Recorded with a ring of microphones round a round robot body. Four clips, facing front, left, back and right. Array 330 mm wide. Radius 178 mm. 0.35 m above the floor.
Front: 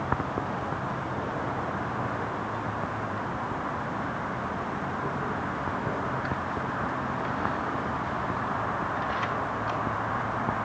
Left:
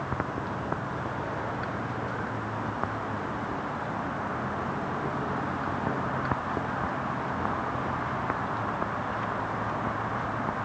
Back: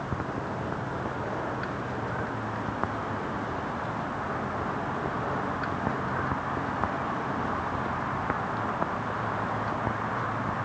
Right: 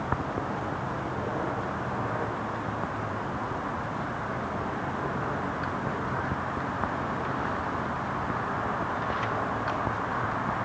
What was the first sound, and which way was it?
Only background noise.